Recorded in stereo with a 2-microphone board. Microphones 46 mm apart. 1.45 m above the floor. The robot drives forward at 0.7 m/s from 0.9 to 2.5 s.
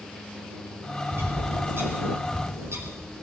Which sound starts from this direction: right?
A bird, at 1.1 s.